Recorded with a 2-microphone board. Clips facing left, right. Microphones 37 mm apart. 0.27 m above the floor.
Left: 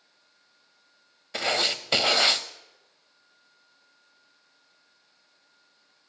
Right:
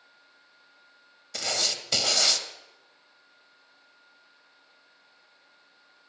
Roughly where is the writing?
Left.